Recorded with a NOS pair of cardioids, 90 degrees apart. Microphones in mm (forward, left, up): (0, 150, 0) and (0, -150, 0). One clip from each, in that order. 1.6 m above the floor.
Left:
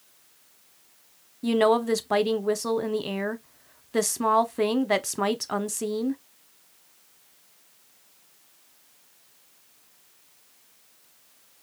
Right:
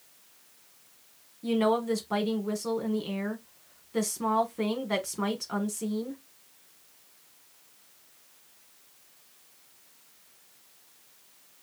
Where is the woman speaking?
40° left, 0.9 m.